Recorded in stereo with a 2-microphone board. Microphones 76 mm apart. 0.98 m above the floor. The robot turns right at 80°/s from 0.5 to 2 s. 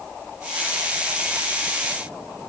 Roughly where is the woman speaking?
No woman speaking in this recording.